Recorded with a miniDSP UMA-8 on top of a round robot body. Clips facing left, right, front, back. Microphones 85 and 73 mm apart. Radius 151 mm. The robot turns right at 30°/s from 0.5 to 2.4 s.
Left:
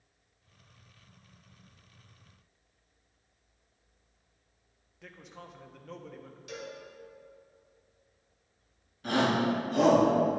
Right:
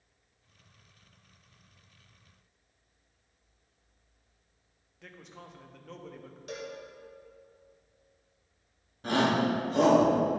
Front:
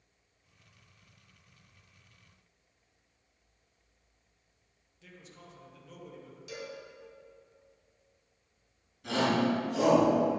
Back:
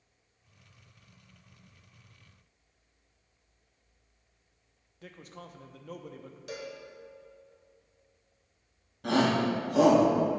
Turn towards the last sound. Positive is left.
turn(degrees=-150)